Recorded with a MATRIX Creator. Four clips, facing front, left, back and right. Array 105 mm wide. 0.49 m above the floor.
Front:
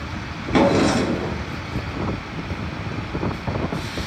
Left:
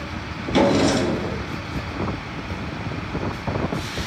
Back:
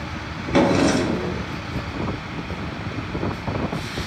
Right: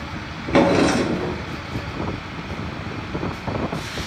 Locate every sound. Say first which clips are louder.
0.5 s a drawer: right 2 dB, front 1 dB; 95° right, 0.5 m